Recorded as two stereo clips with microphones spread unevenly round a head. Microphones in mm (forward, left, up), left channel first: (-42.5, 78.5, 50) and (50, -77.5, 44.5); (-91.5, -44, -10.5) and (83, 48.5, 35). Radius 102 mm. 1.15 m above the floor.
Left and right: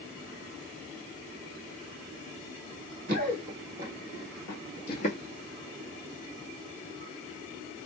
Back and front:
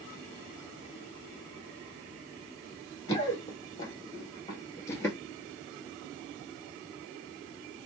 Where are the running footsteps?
65° right, 1.3 m; by 5.2 s 120° left, 1.3 m.